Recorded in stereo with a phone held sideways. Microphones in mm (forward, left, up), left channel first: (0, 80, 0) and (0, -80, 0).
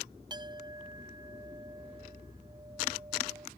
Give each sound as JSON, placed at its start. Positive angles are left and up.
{"t": 0.3, "sound": "a clink", "side_deg": -25}